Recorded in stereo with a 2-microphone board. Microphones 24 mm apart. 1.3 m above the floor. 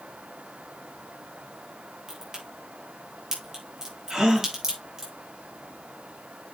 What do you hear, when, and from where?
2.1 s a crack: 15° right (ahead or behind), 6 m
4.1 s a gasp: 15° right (ahead or behind), 3.5 m